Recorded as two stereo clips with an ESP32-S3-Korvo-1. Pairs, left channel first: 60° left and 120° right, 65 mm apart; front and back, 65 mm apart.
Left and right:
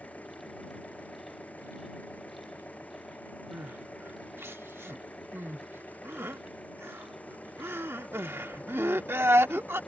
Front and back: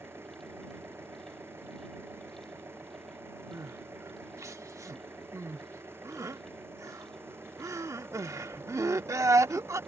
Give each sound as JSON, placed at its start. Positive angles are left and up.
{"t": 0.0, "sound": "an engine running", "azimuth_deg": 130}
{"t": 3.5, "sound": "crying", "azimuth_deg": -160}